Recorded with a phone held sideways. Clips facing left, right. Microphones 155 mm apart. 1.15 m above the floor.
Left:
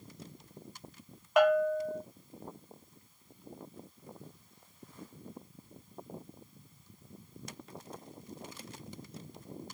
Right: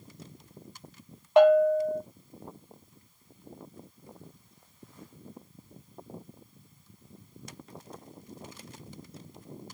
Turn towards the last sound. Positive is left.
turn(degrees=-30)  # may be behind; listen again after turning